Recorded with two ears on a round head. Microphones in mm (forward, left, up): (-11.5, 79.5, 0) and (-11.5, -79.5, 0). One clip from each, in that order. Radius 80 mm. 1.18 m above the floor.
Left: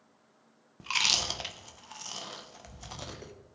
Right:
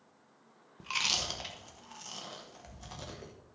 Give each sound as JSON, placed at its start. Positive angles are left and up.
{"t": 0.8, "sound": "chewing", "side_deg": 20, "distance_m": 1.0}